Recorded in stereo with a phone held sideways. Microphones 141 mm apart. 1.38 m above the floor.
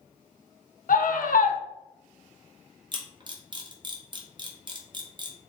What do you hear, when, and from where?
0.9 s a scream: 75° left (ahead or behind), 0.6 m
2.9 s a camera shutter: 35° right (ahead or behind), 0.7 m